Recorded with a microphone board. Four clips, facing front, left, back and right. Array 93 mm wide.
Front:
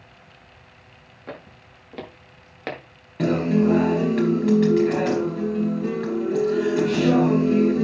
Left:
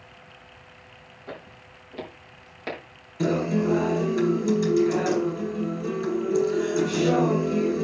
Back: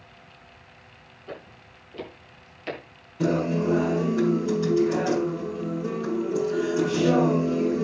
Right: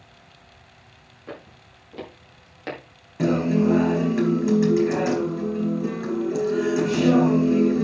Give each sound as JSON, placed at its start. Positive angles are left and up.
{"t": 1.3, "sound": "footsteps", "azimuth_deg": -10, "distance_m": 6.5}
{"t": 3.2, "sound": "a guitar", "azimuth_deg": -30, "distance_m": 4.5}